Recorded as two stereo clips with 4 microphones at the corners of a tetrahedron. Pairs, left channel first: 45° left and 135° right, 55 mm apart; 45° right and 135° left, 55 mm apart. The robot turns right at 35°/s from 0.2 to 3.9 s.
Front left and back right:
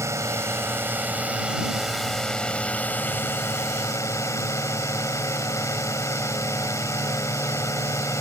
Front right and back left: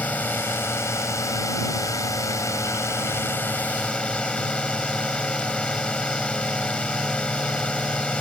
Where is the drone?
105° right; by 8.2 s 25° left.